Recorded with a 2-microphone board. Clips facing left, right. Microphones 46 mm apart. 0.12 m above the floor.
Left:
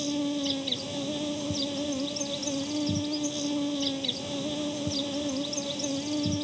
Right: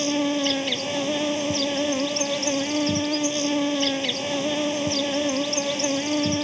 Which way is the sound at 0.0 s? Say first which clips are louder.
Right 6 dB; 60° right (ahead or behind).